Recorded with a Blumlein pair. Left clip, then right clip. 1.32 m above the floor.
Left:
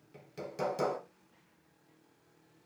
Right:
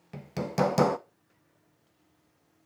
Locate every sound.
0.1 s hammering: 45° right, 0.9 m